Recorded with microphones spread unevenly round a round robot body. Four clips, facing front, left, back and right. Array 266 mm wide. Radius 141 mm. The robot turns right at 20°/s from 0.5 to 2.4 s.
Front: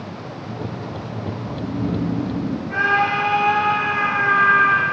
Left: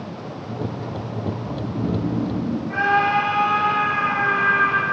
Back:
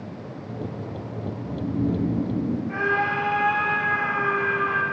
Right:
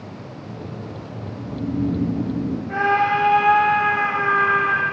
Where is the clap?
No clap in this recording.